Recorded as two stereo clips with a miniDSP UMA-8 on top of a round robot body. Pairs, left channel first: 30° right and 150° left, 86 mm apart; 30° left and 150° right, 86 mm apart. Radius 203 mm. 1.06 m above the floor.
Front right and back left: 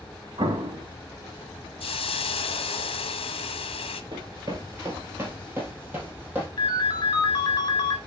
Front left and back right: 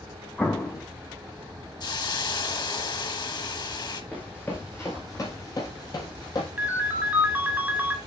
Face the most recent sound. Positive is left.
turn(degrees=-75)